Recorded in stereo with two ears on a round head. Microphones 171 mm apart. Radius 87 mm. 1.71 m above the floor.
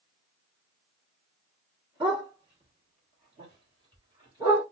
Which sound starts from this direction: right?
A dog barking, at 2.0 s.